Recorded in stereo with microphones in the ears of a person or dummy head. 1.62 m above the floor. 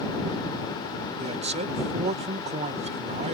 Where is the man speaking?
35° right (ahead or behind).